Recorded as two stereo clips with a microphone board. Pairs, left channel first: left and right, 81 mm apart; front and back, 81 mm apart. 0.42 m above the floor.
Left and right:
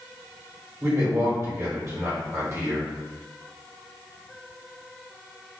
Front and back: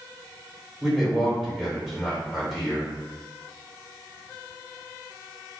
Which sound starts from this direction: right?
A man speaking, at 0.8 s.